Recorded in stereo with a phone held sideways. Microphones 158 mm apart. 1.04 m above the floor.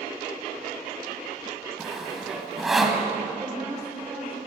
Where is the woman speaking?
15° right (ahead or behind), 4 m.